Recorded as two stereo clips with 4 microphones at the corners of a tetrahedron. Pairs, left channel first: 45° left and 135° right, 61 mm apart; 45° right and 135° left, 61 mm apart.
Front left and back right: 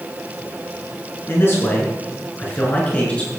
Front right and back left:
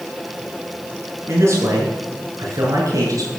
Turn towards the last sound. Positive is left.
turn(degrees=110)